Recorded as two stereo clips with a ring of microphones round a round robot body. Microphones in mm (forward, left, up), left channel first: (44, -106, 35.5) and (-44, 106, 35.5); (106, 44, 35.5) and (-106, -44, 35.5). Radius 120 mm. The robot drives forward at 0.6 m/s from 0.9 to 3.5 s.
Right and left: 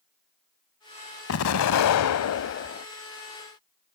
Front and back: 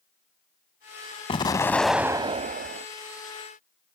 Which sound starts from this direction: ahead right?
An explosion, at 1.3 s.